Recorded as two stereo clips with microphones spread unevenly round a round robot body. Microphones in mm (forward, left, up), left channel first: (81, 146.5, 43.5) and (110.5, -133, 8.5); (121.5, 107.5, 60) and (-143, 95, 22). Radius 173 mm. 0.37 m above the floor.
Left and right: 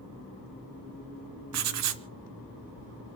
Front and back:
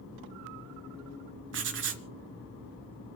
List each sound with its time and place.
1.5 s writing: 125° right, 0.7 m